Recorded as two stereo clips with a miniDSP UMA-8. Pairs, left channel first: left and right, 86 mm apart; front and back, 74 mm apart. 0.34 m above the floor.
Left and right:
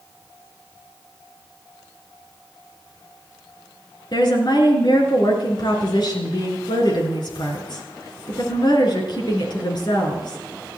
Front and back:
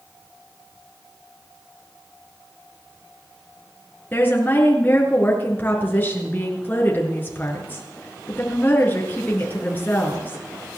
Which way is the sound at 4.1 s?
60° left.